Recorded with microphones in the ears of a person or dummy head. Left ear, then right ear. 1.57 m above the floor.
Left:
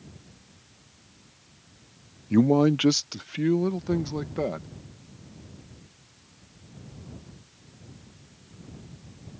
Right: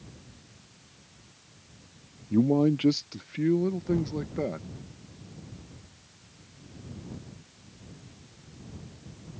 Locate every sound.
2.3 s a man speaking: 60° left (ahead or behind); by 4.7 s 25° left (ahead or behind)